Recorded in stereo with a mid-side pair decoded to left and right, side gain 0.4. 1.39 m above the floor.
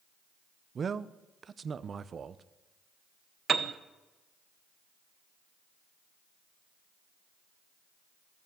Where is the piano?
50° right, 0.8 m.